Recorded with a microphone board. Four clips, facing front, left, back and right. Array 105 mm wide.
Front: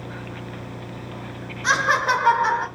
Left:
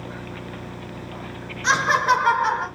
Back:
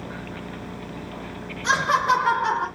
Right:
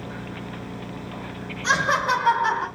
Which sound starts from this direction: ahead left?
Laughter, at 1.6 s.